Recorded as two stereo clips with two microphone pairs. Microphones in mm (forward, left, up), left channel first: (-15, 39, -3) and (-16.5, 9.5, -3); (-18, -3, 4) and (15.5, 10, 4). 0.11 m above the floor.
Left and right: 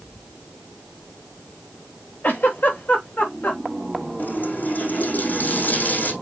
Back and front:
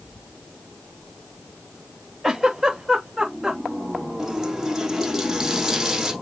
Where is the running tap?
105° left, 3.5 m.